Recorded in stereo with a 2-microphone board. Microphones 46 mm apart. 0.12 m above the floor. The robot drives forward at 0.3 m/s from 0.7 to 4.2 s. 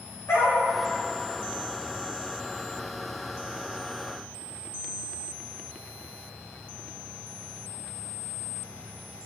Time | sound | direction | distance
0.3 | a dog barking | 75° left (ahead or behind) | 6.5 m